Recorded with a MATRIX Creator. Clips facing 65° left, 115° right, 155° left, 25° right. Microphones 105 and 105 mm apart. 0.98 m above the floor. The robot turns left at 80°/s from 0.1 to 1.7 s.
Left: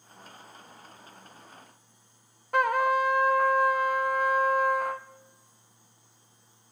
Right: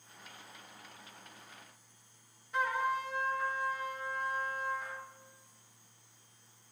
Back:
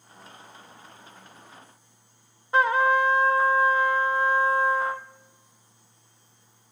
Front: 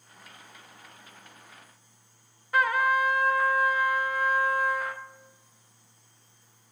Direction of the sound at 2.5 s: 95° left.